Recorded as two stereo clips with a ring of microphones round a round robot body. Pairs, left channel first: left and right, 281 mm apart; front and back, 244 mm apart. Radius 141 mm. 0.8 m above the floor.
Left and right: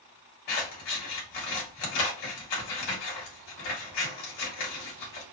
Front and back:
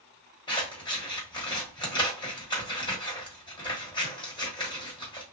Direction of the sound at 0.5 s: 70° left.